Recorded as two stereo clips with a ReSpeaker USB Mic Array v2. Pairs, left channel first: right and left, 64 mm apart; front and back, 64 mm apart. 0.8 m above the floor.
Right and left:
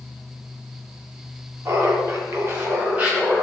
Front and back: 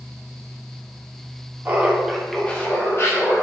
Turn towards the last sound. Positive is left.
turn(degrees=15)